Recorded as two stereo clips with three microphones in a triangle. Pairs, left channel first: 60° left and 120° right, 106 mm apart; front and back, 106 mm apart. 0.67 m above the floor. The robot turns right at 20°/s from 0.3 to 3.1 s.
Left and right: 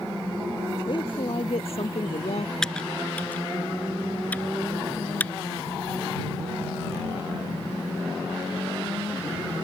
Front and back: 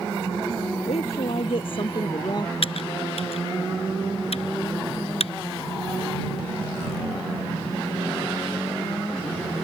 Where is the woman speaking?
20° left; by 2.5 s 50° left.